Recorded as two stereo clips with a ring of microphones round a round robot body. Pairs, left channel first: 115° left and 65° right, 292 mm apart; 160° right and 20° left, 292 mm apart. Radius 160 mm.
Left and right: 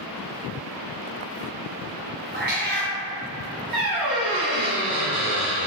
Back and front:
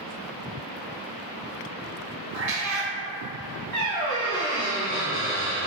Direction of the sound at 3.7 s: 85° right.